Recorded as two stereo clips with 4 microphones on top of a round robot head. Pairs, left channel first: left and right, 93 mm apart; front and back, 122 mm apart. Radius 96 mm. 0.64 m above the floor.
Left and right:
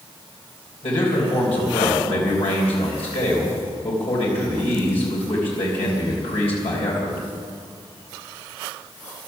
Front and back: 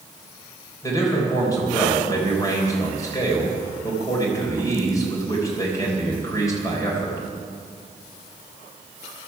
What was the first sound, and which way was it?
A man speaking, 60° left.